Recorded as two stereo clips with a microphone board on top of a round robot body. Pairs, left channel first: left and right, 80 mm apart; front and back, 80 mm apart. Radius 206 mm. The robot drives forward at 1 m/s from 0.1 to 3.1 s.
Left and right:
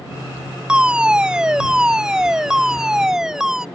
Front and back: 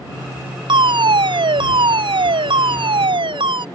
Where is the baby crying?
No baby crying in this recording.